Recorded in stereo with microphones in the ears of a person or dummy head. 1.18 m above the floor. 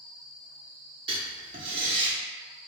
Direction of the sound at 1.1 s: 30° right (ahead or behind).